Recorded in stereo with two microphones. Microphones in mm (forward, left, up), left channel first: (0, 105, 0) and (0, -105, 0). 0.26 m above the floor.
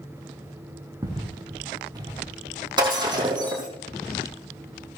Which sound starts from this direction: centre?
Footsteps, at 1.0 s.